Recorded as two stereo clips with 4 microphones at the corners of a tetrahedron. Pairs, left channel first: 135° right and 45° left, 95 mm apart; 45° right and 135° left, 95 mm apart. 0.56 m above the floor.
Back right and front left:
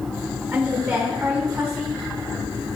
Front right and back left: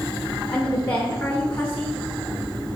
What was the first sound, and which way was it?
A woman speaking, 10° left.